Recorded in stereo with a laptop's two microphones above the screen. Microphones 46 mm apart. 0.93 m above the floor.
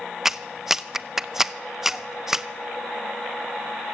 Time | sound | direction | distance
0.2 | a clap | 5° right (ahead or behind) | 0.6 m